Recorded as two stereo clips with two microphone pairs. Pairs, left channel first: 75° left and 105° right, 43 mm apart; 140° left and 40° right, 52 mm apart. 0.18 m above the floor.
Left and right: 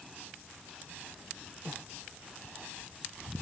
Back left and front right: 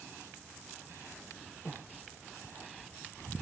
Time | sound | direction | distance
1.6 | breathing | 155° right | 0.5 m